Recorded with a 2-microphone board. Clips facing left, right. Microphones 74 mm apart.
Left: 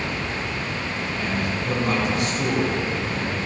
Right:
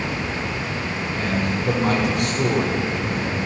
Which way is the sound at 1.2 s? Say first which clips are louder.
Right 4 dB; 85° right.